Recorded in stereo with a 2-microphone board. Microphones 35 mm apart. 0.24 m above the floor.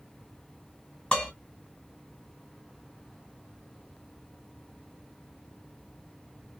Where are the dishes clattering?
35° left (ahead or behind), 1.4 m.